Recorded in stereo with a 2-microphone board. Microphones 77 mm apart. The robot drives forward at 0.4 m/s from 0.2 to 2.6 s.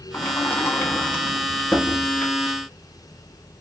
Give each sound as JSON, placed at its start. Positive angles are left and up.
{"t": 0.1, "sound": "a sliding door", "side_deg": 35, "distance_m": 0.5}